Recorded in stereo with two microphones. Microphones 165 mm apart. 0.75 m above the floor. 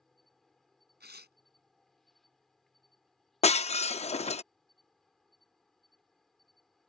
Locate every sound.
0.0 s an insect: centre (ahead or behind)
1.0 s tearing paper: 85° right
3.4 s breaking glass: 40° left (ahead or behind)